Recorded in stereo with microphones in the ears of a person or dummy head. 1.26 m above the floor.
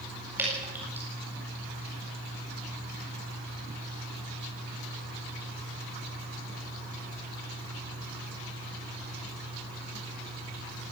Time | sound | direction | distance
0.4 | dripping | 10° right (ahead or behind) | 8 m